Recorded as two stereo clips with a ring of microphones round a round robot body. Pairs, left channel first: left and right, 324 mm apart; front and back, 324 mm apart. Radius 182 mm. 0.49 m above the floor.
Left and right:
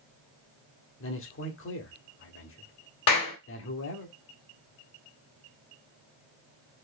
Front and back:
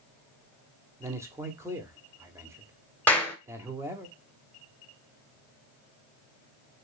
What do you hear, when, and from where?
1.0 s a man speaking: 105° left, 0.9 m
3.1 s a clap: 85° left, 1.6 m